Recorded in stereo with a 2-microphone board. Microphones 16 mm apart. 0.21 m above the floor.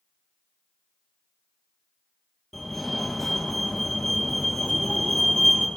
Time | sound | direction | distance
2.5 | a fire alarm | 15° left (ahead or behind) | 9 m